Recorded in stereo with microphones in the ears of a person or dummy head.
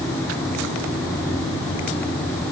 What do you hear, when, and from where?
Only background noise.